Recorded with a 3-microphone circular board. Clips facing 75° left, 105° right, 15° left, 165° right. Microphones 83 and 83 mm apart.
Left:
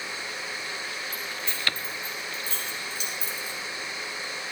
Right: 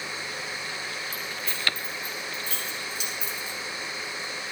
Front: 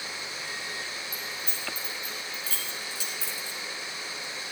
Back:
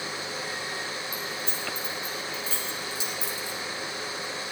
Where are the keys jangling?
140° left, 4 m; by 4.5 s 110° left, 2 m.